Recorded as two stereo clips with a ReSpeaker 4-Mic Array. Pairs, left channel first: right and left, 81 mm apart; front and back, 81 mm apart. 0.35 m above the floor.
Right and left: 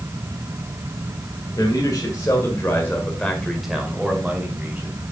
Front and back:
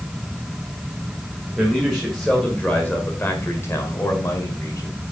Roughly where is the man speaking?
Right.